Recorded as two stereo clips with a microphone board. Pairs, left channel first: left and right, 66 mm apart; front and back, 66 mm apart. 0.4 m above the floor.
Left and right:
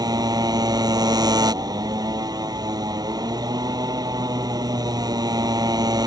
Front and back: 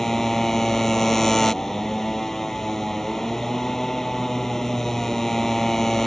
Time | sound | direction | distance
0.0 | a motorcycle | 85° right | ?